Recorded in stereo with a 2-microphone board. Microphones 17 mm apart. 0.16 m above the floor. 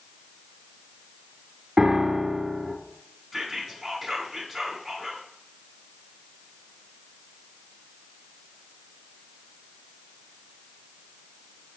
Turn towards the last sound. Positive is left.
turn(degrees=0)  # may be behind; listen again after turning